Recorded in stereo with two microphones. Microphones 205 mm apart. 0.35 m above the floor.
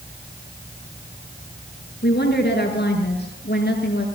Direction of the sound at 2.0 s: 55° left (ahead or behind).